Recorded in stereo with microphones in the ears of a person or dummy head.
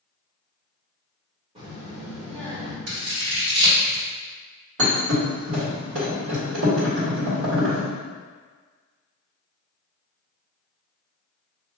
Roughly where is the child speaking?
Right.